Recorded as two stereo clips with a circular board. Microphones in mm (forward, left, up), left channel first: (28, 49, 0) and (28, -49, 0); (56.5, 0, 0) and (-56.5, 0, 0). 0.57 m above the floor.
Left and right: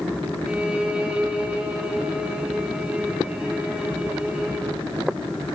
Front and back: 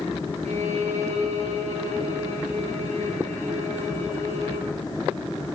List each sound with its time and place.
0.5 s a violin: 170° right, 6.5 m